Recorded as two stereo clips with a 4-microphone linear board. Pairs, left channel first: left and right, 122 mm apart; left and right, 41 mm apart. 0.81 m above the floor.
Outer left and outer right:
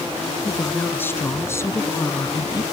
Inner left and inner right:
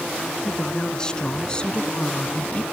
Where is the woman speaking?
15° left (ahead or behind); by 2.6 s 30° left (ahead or behind).